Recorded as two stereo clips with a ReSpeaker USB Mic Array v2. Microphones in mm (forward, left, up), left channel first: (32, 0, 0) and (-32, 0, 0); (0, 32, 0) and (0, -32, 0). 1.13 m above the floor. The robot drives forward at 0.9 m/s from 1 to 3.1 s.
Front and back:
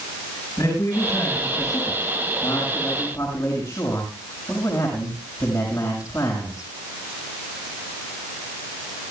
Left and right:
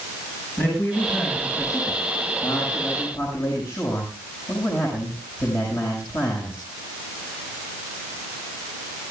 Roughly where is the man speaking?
Ahead left.